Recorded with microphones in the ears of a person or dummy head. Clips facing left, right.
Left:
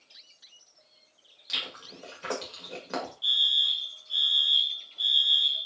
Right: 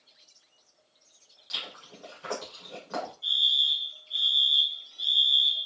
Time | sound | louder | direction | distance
1.5 | chewing | left 2 dB | 40° left (ahead or behind) | 1.9 m
3.2 | a fire alarm | even | 60° left (ahead or behind) | 2 m